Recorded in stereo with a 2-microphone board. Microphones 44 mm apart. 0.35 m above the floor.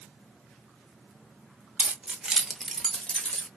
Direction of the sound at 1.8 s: 35° right (ahead or behind).